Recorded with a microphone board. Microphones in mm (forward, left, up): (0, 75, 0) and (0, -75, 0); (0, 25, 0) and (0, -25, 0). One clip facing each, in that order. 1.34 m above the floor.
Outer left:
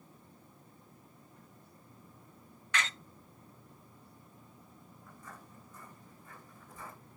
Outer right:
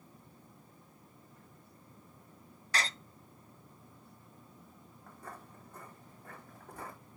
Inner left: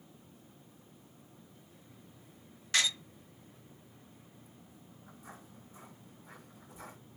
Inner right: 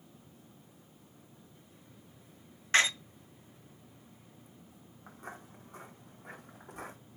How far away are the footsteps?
About 4.5 m.